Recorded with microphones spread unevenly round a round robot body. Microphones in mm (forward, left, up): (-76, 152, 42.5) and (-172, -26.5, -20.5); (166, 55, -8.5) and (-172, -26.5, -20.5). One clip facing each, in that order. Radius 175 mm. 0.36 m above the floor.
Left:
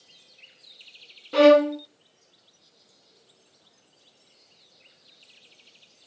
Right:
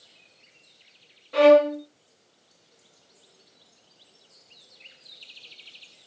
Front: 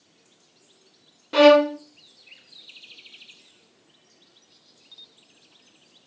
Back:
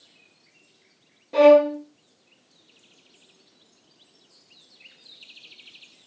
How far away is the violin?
About 0.6 m.